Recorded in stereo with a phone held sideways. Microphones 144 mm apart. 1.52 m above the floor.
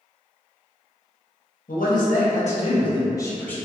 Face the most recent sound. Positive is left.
turn(degrees=10)  # may be behind; listen again after turning